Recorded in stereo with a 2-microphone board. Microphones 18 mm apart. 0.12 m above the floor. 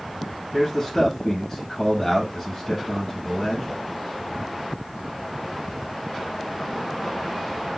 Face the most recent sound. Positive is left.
turn(degrees=20)  # may be behind; listen again after turning